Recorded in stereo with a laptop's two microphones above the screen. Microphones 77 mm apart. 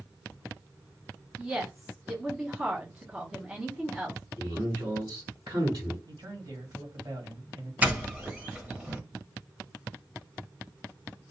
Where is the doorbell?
15° right (ahead or behind), 1.3 m.